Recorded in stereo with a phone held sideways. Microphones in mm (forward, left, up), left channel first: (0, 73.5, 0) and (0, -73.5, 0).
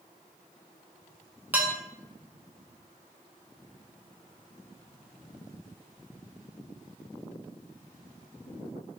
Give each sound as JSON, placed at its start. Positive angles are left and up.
{"t": 1.5, "sound": "dishes clattering", "side_deg": -15, "distance_m": 0.8}